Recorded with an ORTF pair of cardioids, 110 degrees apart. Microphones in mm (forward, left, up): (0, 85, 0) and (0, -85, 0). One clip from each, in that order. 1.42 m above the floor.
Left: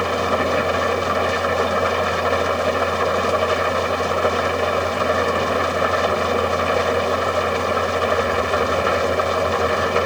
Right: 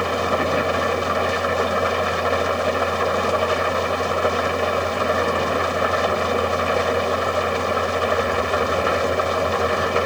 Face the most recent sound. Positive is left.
turn(degrees=10)